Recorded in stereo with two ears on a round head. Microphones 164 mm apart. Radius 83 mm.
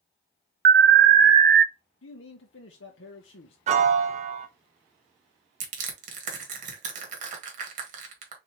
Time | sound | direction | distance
0.7 | an alarm | 55° right (ahead or behind) | 0.6 m
2.0 | a man speaking | 70° left (ahead or behind) | 0.7 m
3.7 | a piano | 40° right (ahead or behind) | 0.7 m
5.6 | crushing | 45° right (ahead or behind) | 1.8 m